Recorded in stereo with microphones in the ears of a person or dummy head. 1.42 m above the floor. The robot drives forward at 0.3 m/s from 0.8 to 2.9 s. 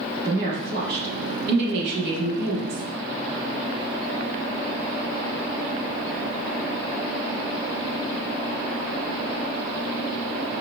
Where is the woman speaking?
65° right (ahead or behind), 1.4 m; by 2.8 s 85° right, 1.3 m.